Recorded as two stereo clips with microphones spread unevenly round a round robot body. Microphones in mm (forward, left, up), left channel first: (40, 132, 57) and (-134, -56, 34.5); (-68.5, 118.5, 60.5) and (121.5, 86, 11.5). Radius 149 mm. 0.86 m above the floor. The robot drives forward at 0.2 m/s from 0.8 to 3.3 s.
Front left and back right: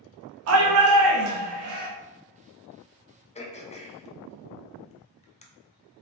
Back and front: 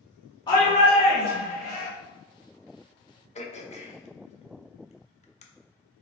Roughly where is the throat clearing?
Left.